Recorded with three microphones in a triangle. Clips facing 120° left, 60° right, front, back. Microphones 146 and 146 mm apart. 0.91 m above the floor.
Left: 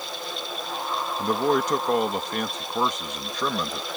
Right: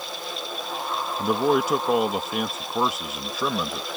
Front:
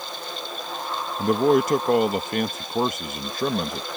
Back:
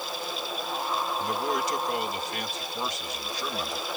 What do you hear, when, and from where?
1.2 s a man speaking: 25° left